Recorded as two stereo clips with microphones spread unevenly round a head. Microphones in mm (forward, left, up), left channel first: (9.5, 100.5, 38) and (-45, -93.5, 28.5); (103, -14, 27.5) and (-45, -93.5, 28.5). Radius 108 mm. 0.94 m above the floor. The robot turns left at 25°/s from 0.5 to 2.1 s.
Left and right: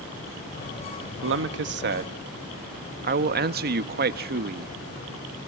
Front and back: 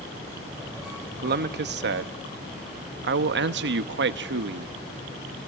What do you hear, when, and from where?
1.2 s a man speaking: 125° right, 1.0 m; by 4.8 s 145° right, 1.0 m